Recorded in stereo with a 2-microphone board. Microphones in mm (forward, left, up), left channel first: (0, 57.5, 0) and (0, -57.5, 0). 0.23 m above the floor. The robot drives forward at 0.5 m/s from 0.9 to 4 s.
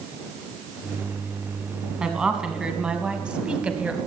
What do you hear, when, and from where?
2.0 s a woman speaking: 5° right (ahead or behind), 2 m; by 4.0 s 10° right (ahead or behind), 1.6 m